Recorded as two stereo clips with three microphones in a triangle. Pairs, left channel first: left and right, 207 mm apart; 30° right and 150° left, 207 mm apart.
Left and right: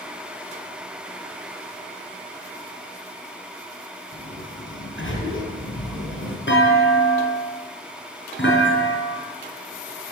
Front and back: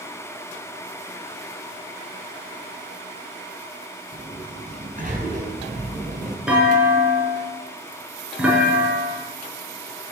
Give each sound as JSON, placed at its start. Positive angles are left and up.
{"t": 4.1, "sound": "a sliding door", "azimuth_deg": 100, "distance_m": 5.0}
{"t": 6.5, "sound": "a clunk", "azimuth_deg": 65, "distance_m": 5.5}